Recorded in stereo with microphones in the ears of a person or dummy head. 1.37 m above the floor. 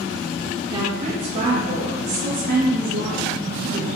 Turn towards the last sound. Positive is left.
turn(degrees=-65)  # may be behind; listen again after turning